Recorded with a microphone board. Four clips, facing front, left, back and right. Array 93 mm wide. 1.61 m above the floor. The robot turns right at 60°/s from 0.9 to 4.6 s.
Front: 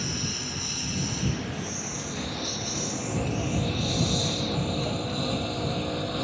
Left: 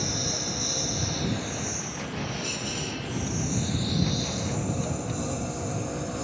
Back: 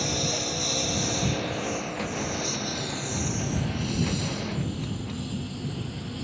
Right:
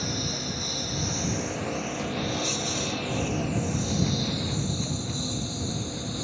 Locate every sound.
0.0 s a lawn mower: 170° left; by 6.2 s 25° left